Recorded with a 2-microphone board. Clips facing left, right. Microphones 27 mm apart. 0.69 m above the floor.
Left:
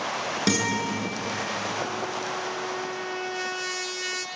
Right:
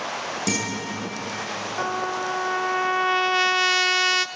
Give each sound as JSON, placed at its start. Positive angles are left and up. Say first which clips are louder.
{"t": 0.5, "sound": "a guitar", "louder": "left 3 dB", "side_deg": 40, "distance_m": 8.5}
{"t": 1.8, "sound": "a trumpet", "louder": "right 4 dB", "side_deg": -65, "distance_m": 0.6}